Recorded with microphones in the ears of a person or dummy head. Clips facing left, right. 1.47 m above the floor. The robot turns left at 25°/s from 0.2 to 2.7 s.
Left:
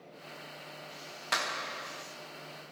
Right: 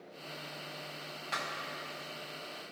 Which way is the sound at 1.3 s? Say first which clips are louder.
Left 5 dB; 70° left (ahead or behind).